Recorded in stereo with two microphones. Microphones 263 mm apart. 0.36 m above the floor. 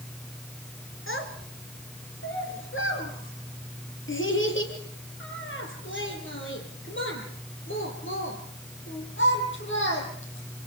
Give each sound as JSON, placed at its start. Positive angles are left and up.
{"t": 1.1, "sound": "a child speaking", "side_deg": 50, "distance_m": 4.0}